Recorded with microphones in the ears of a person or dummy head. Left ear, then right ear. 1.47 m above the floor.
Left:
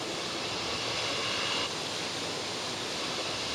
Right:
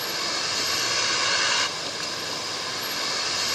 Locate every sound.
0.0 s a vehicle: 50° right (ahead or behind)